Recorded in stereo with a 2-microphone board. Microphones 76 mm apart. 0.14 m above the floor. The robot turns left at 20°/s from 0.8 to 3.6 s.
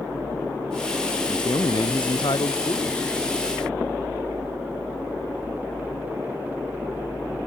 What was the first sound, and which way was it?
A man speaking, 100° left.